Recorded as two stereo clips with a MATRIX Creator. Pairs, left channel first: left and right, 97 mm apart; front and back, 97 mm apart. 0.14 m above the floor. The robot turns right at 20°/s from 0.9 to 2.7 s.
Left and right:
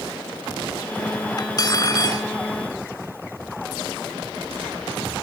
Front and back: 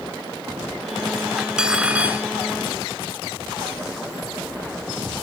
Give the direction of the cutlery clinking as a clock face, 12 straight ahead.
9 o'clock.